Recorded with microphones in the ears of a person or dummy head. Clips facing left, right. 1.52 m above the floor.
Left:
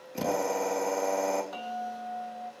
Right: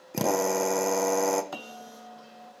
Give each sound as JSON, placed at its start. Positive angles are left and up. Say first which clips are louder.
{"t": 0.1, "sound": "a drill", "louder": "right 3 dB", "side_deg": -65, "distance_m": 1.3}
{"t": 1.5, "sound": "a bell", "louder": "left 6 dB", "side_deg": -65, "distance_m": 1.0}